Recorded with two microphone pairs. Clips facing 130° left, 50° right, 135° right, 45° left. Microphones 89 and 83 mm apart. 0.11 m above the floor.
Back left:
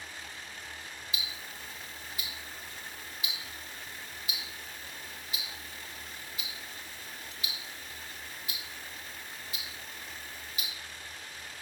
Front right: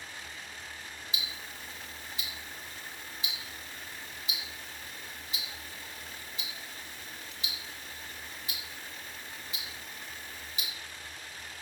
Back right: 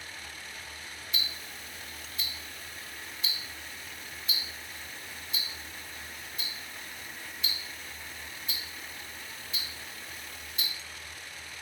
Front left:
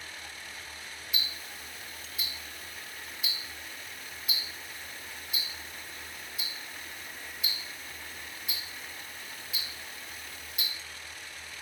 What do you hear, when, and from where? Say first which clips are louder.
1.1 s ticking: even, even; 30° right, 0.9 m